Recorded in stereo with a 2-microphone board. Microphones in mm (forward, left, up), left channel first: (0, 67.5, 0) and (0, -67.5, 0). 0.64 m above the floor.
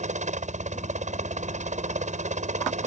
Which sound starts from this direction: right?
A helicopter, at 0.0 s.